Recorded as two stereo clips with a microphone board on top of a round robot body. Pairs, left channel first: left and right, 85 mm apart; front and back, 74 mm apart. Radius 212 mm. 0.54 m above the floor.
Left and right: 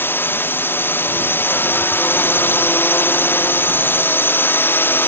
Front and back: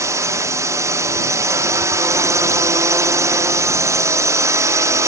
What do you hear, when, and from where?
0.0 s a drone: 150° left